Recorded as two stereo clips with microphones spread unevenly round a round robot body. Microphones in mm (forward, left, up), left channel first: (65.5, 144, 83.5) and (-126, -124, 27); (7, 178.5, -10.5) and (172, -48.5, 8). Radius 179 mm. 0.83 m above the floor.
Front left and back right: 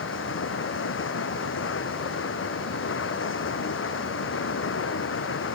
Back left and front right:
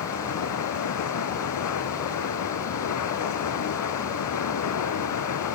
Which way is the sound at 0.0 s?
110° left.